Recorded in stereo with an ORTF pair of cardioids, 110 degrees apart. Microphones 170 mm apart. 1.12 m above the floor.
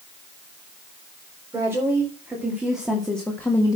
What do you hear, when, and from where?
1.5 s a woman speaking: 15° right, 4 m; by 3.8 s 20° left, 1.7 m